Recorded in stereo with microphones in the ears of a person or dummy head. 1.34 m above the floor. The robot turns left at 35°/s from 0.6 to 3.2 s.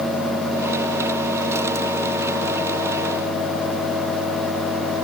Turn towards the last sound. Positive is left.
No sound to turn to.